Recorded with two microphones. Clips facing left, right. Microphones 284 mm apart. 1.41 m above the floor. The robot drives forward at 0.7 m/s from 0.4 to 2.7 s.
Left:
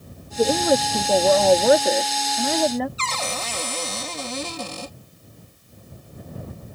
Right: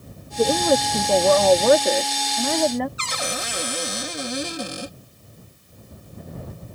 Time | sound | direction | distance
0.4 | a woman speaking | 5° left (ahead or behind) | ?
3.0 | a cupboard door | 15° right (ahead or behind) | ?